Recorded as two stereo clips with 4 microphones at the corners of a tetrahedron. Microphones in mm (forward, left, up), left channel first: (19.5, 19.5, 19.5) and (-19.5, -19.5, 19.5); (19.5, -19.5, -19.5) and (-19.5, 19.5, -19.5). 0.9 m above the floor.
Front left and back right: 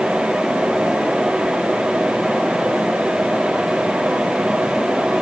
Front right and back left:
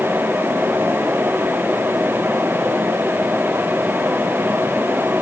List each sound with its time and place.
Only background noise.